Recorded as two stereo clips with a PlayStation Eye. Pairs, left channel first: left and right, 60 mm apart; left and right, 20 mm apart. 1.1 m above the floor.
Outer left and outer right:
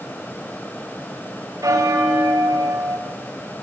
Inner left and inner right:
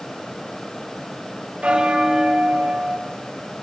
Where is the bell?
80° right, 3 m.